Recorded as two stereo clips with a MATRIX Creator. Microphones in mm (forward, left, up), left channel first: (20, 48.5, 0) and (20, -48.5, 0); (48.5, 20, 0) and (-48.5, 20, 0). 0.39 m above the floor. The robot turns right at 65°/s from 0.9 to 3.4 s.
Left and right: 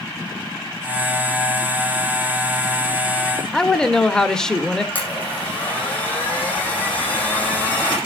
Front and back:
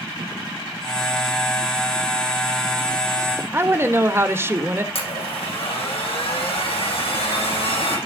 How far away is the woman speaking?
About 1.3 m.